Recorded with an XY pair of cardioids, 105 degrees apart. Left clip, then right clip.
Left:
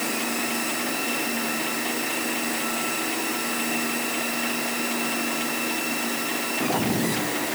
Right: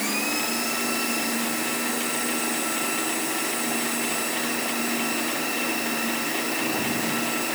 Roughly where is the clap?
I don't hear a clap.